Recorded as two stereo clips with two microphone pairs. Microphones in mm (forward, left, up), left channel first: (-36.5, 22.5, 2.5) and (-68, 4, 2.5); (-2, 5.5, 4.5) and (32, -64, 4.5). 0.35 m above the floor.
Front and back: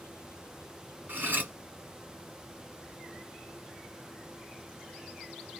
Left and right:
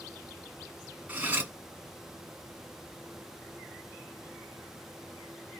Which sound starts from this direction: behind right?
Cutlery clinking, at 1.1 s.